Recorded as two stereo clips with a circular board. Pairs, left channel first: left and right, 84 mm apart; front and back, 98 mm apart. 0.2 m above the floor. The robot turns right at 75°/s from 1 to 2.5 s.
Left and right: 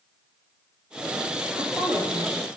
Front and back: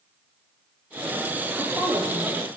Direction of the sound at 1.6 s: 120° left.